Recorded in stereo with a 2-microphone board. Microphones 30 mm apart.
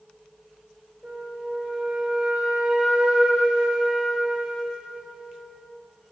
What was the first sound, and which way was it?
A flute, 55° right (ahead or behind).